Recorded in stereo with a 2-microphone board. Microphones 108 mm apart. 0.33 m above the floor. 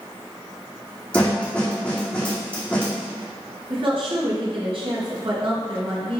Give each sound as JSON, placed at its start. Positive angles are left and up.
{"t": 1.1, "sound": "a snare drum", "side_deg": 10, "distance_m": 2.0}
{"t": 3.7, "sound": "a woman speaking", "side_deg": -60, "distance_m": 3.0}